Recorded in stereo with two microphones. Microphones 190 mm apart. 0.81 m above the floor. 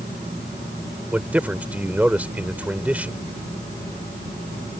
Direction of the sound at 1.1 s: 10° right (ahead or behind).